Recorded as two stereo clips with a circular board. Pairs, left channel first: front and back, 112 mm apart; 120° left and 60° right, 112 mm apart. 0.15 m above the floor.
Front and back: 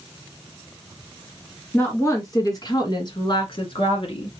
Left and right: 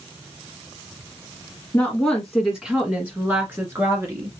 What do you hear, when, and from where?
1.7 s a woman speaking: 50° left, 1.4 m; by 4.3 s 5° right, 2 m